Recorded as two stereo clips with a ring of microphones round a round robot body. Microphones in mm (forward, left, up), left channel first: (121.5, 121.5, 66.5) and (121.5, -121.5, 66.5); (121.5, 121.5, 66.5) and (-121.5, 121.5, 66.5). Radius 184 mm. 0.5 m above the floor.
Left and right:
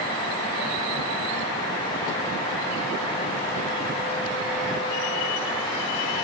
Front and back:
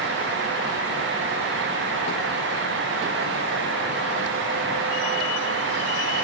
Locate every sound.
Only background noise.